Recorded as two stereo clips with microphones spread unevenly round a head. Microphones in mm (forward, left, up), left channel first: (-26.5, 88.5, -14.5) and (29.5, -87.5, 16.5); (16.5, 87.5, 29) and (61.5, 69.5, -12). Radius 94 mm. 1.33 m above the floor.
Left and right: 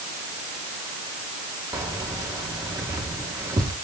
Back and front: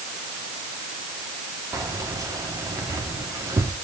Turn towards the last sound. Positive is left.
turn(degrees=0)